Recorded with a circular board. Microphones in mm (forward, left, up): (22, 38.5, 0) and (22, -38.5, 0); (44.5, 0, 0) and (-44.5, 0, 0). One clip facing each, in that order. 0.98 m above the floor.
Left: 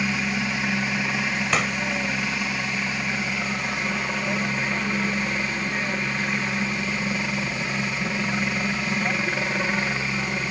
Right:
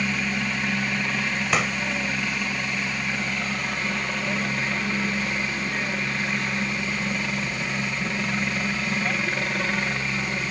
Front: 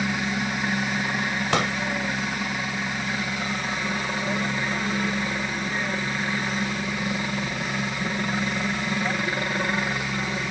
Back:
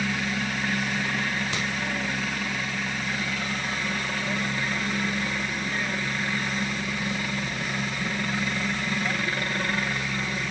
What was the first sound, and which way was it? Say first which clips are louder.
A helicopter: left 1 dB, front 2 dB; 25° left.